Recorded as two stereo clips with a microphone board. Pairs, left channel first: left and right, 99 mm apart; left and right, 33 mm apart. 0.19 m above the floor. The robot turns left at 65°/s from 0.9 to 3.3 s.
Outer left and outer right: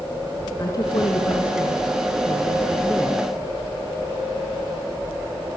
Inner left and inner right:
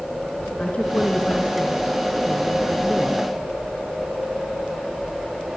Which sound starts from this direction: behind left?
A woman speaking, at 0.6 s.